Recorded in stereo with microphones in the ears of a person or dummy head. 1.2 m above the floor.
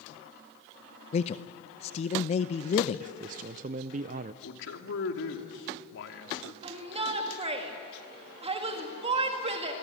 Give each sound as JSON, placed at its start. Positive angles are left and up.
{"t": 1.1, "sound": "a man speaking", "side_deg": 40, "distance_m": 0.7}
{"t": 3.0, "sound": "a man speaking", "side_deg": -40, "distance_m": 0.5}
{"t": 4.4, "sound": "a man speaking", "side_deg": 70, "distance_m": 2.5}
{"t": 6.6, "sound": "a shout", "side_deg": -35, "distance_m": 2.0}